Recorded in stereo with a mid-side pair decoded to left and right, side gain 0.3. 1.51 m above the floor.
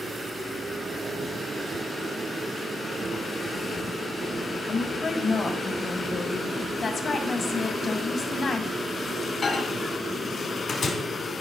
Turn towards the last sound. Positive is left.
turn(degrees=65)